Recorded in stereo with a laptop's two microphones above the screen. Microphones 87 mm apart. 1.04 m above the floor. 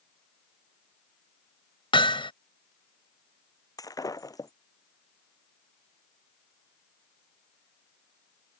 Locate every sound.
1.9 s hammering: 80° left
3.8 s breaking glass: 45° left (ahead or behind)